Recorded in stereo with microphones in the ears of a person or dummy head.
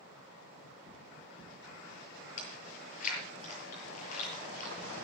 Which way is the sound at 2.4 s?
45° left (ahead or behind).